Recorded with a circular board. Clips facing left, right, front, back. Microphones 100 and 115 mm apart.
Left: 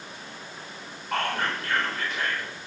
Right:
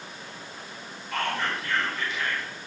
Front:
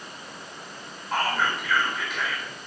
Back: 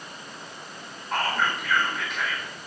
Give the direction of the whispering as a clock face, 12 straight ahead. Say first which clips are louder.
Left 1 dB, front 1 dB; 9 o'clock.